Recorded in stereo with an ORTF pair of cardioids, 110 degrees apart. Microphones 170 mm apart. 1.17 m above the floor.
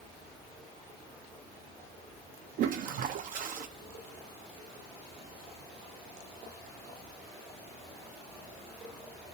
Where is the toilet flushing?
55° right, 0.6 m.